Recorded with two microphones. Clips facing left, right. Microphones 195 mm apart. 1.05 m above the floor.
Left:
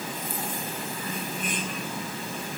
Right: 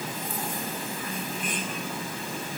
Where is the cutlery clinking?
No cutlery clinking in this recording.